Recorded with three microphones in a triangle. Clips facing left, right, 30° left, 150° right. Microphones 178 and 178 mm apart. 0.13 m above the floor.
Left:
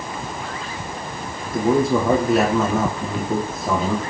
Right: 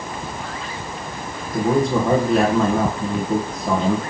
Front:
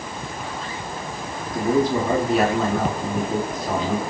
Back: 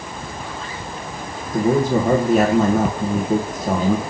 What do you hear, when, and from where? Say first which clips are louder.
1.5 s a man speaking: left 1 dB, back 3 dB; 175° left, 2.5 m